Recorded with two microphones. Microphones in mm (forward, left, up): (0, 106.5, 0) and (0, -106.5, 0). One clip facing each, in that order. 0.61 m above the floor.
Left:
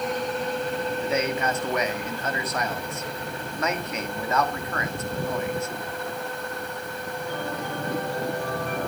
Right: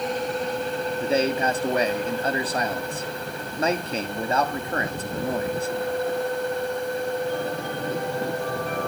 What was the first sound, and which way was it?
A man speaking, 30° right (ahead or behind).